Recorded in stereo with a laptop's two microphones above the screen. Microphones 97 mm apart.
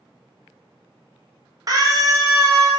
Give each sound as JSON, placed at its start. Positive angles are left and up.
{"t": 1.7, "sound": "a scream", "side_deg": -40, "distance_m": 0.6}